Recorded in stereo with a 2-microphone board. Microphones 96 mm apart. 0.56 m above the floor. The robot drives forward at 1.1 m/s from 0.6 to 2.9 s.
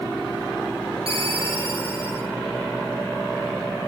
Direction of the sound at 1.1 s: 75° right (ahead or behind).